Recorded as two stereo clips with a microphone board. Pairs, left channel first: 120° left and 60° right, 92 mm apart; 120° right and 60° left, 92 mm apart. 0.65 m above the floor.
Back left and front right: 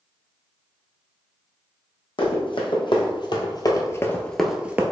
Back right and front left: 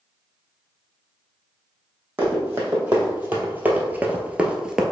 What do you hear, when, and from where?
2.2 s running footsteps: 130° left, 1.6 m; by 4.8 s 20° right, 0.7 m